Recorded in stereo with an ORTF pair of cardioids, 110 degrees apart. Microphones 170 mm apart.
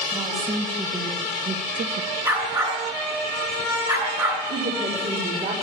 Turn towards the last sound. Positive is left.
turn(degrees=-45)